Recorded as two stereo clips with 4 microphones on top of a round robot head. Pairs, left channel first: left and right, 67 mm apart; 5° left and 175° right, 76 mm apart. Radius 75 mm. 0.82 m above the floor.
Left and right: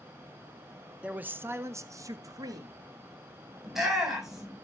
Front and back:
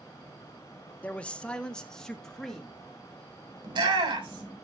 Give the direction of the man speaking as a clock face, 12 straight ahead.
1 o'clock.